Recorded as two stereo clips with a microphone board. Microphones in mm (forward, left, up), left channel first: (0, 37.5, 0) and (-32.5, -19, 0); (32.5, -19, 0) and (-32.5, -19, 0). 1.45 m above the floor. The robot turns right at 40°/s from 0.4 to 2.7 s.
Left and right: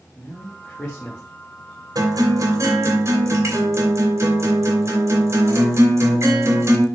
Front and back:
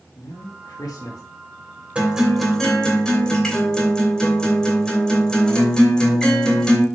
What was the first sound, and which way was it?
A man speaking, 30° right.